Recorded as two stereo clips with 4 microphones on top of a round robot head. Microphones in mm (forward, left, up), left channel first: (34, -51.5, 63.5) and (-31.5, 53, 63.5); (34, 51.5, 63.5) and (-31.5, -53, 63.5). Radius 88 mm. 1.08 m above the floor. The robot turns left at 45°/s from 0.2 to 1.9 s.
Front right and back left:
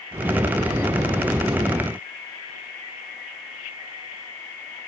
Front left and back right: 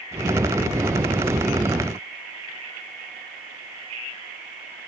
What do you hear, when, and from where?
Only background noise.